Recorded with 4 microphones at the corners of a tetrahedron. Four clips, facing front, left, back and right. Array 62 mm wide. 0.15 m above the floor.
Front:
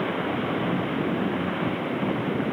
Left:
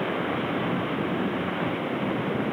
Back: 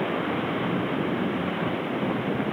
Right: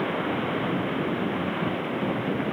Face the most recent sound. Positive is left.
No sound to turn to.